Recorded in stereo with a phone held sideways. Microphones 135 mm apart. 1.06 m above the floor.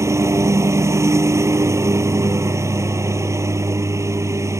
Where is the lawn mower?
20° right (ahead or behind).